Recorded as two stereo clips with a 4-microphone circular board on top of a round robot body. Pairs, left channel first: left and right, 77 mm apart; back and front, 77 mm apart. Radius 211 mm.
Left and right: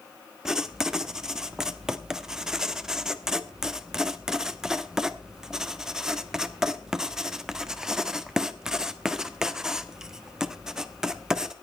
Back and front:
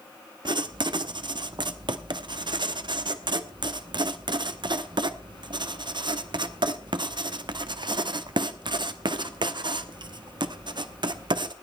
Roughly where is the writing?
Ahead.